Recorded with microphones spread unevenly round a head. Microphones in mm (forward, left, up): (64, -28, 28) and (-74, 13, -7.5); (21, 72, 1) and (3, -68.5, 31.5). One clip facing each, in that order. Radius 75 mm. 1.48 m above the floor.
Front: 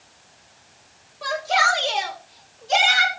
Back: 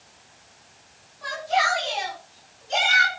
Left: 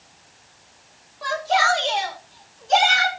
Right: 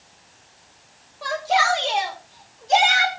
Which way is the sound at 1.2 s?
20° right.